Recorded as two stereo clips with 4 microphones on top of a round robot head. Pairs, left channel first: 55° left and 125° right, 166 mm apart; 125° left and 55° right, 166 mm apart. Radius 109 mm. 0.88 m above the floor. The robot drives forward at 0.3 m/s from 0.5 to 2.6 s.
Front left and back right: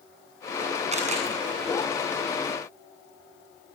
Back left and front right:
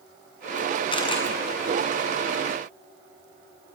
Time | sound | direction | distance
0.9 | a camera shutter | 175° right | 7.5 m